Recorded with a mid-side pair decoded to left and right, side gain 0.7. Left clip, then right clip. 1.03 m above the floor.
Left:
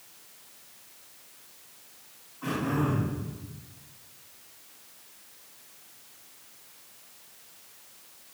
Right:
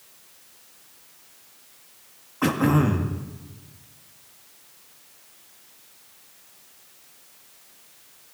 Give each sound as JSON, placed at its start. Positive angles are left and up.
{"t": 2.4, "sound": "throat clearing", "azimuth_deg": -65, "distance_m": 1.6}